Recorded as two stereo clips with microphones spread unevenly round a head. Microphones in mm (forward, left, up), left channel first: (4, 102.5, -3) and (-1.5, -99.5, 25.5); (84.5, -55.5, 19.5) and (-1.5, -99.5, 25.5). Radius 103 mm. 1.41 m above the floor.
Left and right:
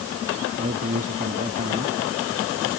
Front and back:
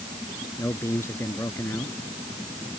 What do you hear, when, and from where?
0.6 s a man speaking: 40° right